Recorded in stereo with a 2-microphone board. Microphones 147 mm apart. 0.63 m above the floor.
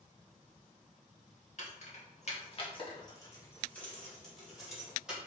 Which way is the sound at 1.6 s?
55° left (ahead or behind).